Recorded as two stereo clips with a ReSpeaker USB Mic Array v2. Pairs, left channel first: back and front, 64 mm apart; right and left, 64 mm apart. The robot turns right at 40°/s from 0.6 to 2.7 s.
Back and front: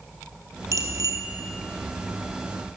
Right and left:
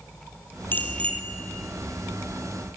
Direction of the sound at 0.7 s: 35° right.